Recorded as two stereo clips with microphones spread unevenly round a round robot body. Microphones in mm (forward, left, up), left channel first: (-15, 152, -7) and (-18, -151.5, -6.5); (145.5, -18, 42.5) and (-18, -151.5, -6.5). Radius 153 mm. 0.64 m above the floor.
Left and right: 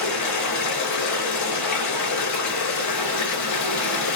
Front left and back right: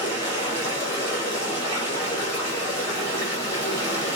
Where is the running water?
125° left, 1.7 m.